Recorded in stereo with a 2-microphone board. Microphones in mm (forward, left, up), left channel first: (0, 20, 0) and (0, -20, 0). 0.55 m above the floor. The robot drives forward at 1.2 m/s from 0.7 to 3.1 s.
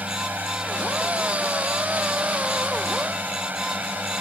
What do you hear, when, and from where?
0.0 s a drone: 45° right (ahead or behind); by 4.2 s 50° right (ahead or behind)